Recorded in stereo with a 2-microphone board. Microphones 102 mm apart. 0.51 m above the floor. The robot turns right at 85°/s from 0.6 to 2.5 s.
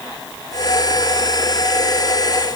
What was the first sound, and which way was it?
Only background noise.